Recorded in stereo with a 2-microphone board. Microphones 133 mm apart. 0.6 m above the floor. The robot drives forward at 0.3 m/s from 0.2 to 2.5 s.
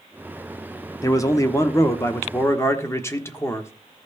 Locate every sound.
1.0 s a man speaking: 25° left (ahead or behind), 1.0 m; by 3.7 s 20° left (ahead or behind), 1.3 m